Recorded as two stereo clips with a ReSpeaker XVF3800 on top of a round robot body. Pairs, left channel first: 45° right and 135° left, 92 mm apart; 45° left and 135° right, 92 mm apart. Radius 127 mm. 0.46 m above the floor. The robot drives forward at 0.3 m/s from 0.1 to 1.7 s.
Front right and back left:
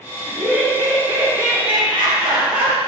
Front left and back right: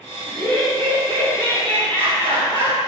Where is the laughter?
155° right, 3 m; by 2.8 s 160° right, 3.5 m.